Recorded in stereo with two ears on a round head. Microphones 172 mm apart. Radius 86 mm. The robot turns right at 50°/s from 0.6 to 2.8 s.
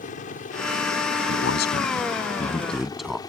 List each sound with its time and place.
0.0 s a helicopter: 40° left (ahead or behind); by 3.3 s 20° left (ahead or behind)
1.3 s a man speaking: 75° left (ahead or behind); by 3.2 s centre (ahead or behind)